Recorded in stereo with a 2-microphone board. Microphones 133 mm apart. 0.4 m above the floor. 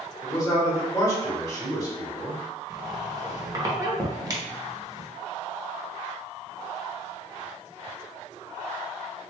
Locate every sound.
0.2 s a man speaking: 25° left (ahead or behind), 1.0 m
2.7 s a squeak: 30° right (ahead or behind), 0.7 m